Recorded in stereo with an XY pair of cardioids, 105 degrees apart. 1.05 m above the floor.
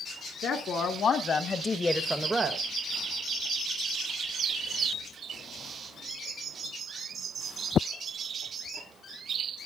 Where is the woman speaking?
60° left, 2 m; by 2.6 s 45° right, 1.0 m.